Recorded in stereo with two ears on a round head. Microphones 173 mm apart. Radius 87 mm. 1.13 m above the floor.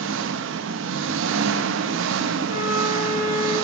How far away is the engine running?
About 0.7 m.